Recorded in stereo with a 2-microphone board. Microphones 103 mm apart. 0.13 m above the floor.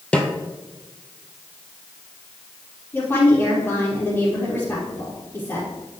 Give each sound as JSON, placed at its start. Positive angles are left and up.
{"t": 0.1, "sound": "a snare drum", "side_deg": 10, "distance_m": 1.2}
{"t": 2.9, "sound": "a woman speaking", "side_deg": 20, "distance_m": 4.5}